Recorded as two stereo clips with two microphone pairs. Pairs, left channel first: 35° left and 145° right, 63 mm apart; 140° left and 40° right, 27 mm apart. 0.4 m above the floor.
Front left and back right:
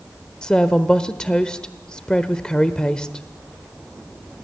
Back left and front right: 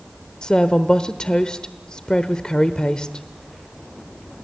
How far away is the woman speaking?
About 0.9 m.